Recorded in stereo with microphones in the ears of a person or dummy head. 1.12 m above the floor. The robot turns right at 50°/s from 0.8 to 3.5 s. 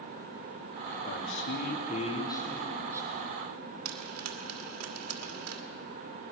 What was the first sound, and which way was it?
A man speaking, 100° left.